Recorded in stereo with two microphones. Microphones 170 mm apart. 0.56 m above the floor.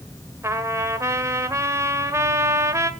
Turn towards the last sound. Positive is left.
turn(degrees=-15)  # may be behind; listen again after turning